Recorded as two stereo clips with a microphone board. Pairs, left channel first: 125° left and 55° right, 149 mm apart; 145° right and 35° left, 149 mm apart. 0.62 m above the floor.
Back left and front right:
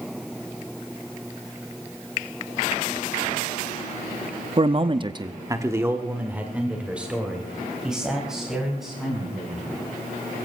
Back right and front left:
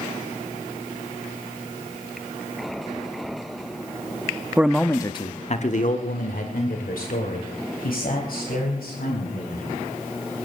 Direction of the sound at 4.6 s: 35° right.